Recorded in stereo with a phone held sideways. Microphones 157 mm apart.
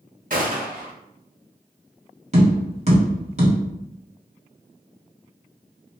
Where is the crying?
No crying in this recording.